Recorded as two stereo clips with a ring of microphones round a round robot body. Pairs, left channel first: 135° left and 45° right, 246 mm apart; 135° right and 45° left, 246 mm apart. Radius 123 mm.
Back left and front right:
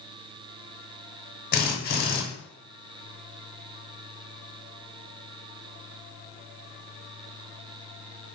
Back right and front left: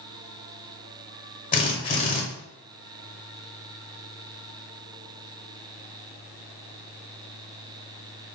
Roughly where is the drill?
Behind.